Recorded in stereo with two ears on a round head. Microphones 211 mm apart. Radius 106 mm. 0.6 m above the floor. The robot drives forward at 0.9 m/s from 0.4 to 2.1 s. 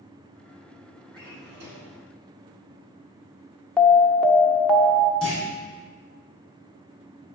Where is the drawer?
40° right (ahead or behind), 3.5 m; by 1.9 s 50° right (ahead or behind), 3 m.